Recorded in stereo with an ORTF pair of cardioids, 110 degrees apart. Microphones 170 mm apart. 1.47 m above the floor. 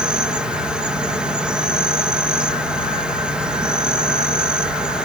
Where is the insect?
5° right.